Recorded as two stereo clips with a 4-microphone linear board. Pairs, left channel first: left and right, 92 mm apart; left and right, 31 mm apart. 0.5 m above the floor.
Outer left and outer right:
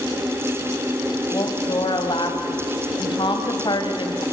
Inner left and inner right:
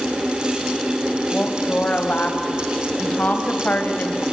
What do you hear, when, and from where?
1.3 s a woman speaking: 60° left (ahead or behind), 3 m